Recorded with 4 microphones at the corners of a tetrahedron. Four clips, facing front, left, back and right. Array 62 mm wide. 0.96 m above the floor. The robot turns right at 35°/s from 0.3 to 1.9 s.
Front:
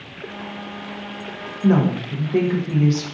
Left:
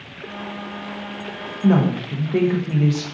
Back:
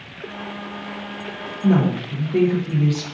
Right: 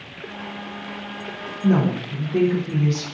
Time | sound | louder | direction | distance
1.6 | a woman speaking | left 2 dB, front 1 dB | 60° left | 0.7 m